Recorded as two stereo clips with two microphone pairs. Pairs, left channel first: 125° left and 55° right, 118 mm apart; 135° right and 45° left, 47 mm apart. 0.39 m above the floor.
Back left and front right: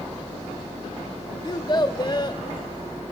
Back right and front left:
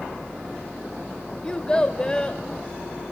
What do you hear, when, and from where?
1.4 s a child speaking: 155° left, 1.0 m